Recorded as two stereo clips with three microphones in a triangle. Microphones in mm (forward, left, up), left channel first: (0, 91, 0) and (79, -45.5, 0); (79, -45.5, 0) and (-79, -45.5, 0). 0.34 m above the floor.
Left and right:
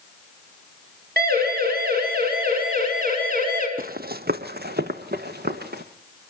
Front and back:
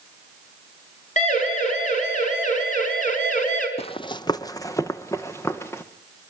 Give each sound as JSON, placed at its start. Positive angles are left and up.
{"t": 1.2, "sound": "a siren", "azimuth_deg": -40, "distance_m": 6.0}
{"t": 3.8, "sound": "running footsteps", "azimuth_deg": -45, "distance_m": 0.5}